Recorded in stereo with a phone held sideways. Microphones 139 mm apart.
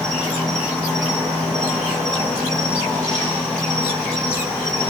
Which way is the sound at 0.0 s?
5° left (ahead or behind).